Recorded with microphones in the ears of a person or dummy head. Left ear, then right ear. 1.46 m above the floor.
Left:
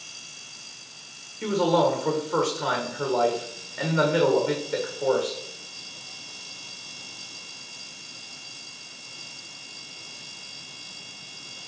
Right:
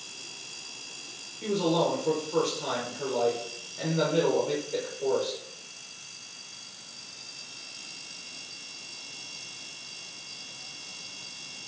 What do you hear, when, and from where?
1.4 s a man speaking: 50° left (ahead or behind), 1.4 m